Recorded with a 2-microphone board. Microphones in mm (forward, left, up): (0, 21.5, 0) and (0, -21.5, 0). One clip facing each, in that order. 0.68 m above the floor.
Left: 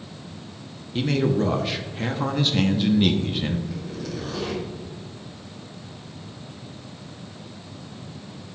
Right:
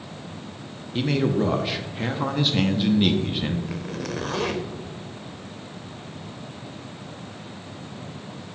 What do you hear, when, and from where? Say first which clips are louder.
0.9 s a man speaking: even; 5° right (ahead or behind), 0.6 m
3.7 s a zipper: right 2 dB; 65° right (ahead or behind), 0.7 m